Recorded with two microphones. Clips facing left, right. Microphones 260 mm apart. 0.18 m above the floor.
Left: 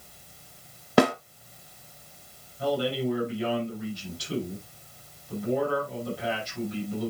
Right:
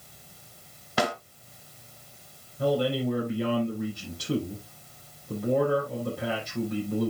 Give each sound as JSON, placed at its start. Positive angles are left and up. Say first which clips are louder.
{"t": 1.0, "sound": "a snare drum", "louder": "left 8 dB", "side_deg": 60, "distance_m": 1.1}
{"t": 2.6, "sound": "a man speaking", "louder": "right 2 dB", "side_deg": -55, "distance_m": 5.5}